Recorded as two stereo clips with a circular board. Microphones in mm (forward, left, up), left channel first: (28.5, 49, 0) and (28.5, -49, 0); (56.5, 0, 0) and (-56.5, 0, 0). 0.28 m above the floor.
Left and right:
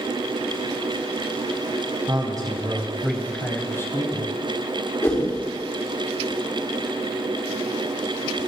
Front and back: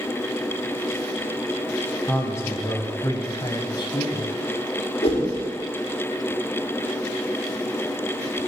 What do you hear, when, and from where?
2.1 s a man speaking: 65° right, 2.0 m; by 4.3 s 50° left, 2.5 m
5.0 s a whoosh: 30° left, 4.5 m